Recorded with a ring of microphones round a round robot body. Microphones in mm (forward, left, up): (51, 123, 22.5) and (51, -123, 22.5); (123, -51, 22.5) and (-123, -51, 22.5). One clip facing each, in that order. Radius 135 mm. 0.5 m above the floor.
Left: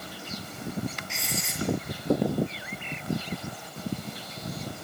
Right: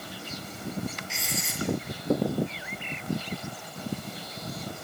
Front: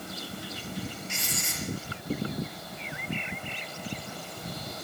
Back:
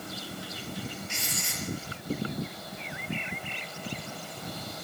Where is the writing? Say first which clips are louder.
Even, front 1 dB; straight ahead, 6 m.